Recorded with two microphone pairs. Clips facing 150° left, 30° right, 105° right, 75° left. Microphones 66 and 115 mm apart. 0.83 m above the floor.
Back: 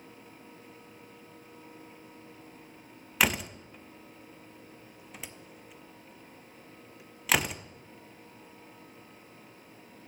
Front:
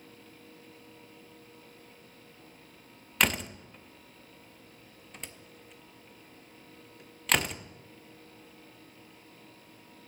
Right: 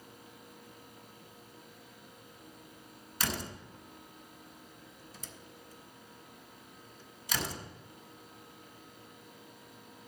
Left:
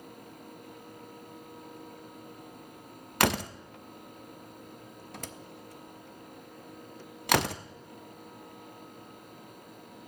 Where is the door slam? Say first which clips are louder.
Back 1 dB, left 10 dB; 60° left, 0.5 m.